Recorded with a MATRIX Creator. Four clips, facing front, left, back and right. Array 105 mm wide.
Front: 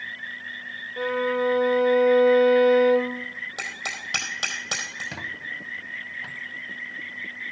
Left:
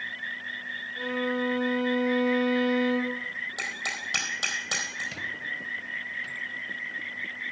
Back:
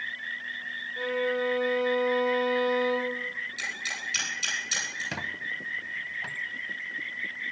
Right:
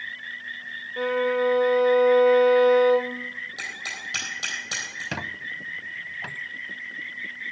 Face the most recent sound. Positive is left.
turn(degrees=-100)